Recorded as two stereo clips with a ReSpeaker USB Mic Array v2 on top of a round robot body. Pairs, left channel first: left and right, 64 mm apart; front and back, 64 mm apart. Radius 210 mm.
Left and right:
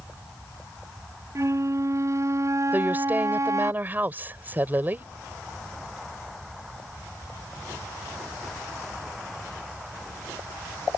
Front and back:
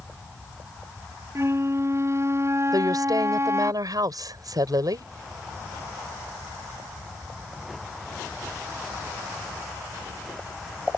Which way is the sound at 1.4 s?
130° right.